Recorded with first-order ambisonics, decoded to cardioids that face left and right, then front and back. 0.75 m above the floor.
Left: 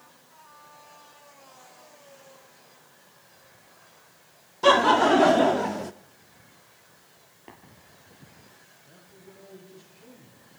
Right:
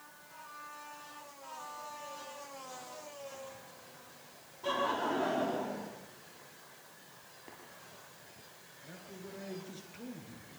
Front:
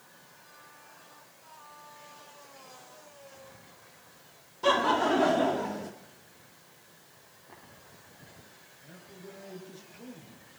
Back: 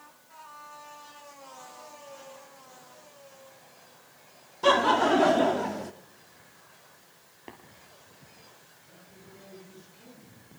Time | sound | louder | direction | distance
4.6 | laughter | left 15 dB, back 3 dB | 105° left | 1.3 m
7.5 | tapping | left 5 dB, back 6 dB | 160° left | 3.5 m
8.8 | a man speaking | right 6 dB, front 8 dB | 65° right | 10 m